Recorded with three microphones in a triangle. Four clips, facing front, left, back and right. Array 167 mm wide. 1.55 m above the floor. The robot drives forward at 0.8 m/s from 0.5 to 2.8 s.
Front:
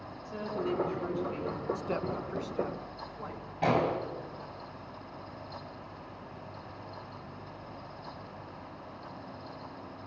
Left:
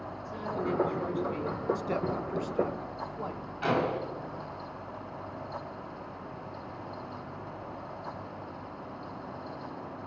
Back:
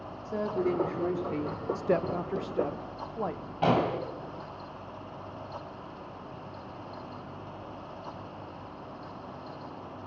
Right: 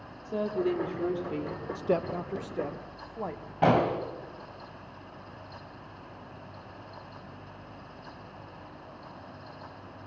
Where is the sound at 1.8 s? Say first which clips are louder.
Right 2 dB, back 6 dB; 130° right, 0.6 m; by 3.5 s 160° right, 1.3 m.